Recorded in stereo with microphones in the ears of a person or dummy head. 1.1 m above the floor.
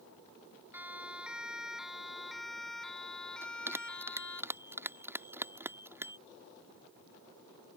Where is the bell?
10° right (ahead or behind).